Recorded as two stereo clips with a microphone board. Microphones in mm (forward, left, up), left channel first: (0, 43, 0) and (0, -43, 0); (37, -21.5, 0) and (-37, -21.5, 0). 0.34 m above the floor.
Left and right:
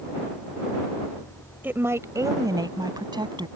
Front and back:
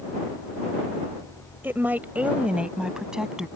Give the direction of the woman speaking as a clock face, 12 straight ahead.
5 o'clock.